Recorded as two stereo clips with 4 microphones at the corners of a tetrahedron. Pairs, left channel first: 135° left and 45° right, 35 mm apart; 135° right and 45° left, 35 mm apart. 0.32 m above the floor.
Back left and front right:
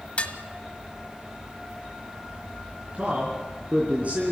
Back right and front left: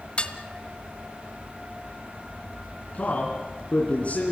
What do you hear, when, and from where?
0.2 s dishes clattering: straight behind, 1.2 m
2.9 s a man speaking: 90° right, 3.5 m